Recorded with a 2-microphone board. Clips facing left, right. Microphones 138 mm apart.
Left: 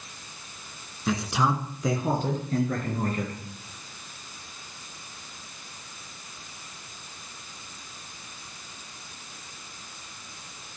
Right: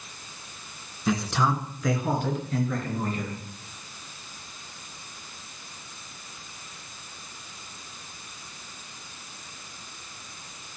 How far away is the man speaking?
About 1.8 m.